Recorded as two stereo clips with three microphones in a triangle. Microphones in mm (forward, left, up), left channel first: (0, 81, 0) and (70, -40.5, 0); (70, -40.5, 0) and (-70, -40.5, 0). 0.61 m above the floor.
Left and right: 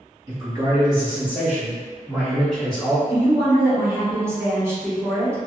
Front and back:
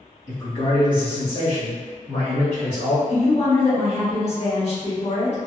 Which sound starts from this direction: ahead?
A woman speaking, at 3.1 s.